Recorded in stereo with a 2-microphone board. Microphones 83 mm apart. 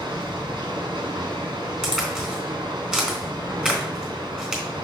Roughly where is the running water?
Right.